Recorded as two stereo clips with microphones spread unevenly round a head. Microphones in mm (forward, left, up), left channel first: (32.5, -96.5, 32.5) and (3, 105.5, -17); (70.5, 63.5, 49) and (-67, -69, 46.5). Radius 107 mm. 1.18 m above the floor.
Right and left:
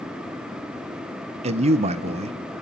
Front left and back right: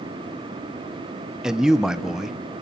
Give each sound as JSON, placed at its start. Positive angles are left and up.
{"t": 1.4, "sound": "a man speaking", "azimuth_deg": 140, "distance_m": 0.8}